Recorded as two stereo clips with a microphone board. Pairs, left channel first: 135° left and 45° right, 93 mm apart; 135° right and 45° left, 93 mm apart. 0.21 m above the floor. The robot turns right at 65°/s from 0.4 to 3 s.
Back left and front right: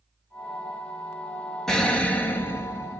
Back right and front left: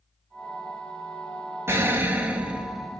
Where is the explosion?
55° left, 1.0 m; by 3.0 s 140° left, 1.0 m.